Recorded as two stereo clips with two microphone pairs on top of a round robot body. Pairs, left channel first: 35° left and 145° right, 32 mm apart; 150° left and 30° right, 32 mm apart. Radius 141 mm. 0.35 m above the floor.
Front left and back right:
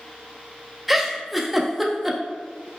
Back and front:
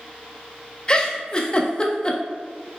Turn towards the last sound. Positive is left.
turn(degrees=145)